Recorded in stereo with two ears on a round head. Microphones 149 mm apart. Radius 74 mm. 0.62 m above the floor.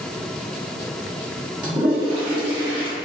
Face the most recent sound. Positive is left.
turn(degrees=-30)  # may be behind; listen again after turning